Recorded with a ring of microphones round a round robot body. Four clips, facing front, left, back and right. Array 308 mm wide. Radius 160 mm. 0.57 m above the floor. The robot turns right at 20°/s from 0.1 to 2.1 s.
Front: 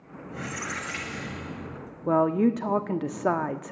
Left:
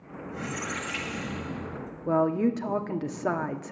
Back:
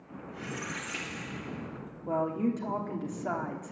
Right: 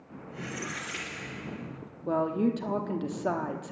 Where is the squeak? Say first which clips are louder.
Left 4 dB, front 4 dB; 20° left, 1.4 m; by 1.8 s 50° left, 1.4 m.